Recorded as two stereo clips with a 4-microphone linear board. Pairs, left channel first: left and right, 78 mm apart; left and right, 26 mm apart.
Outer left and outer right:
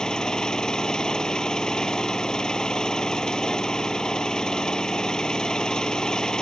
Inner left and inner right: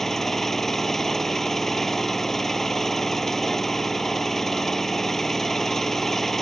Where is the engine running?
10° left (ahead or behind).